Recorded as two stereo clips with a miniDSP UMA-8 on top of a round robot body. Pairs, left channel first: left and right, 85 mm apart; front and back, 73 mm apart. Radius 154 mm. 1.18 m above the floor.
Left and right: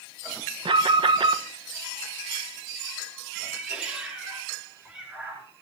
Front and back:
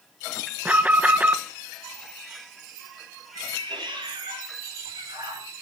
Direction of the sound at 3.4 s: 170° right.